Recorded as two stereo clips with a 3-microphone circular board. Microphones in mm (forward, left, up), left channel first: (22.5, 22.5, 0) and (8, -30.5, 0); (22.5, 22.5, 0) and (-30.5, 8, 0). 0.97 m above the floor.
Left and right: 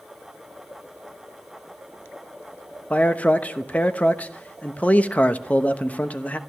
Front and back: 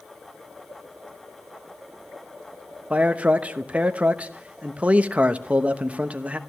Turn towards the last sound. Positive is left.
turn(degrees=135)